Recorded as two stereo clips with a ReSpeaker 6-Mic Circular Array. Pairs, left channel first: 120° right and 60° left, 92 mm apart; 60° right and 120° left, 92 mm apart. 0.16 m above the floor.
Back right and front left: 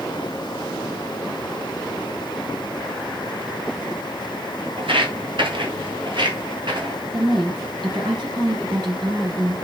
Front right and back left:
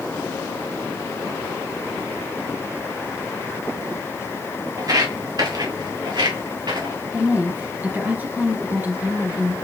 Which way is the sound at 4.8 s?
75° left.